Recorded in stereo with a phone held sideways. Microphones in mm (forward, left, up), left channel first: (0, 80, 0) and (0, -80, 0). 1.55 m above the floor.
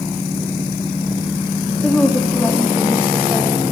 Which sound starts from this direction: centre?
A woman speaking, at 1.8 s.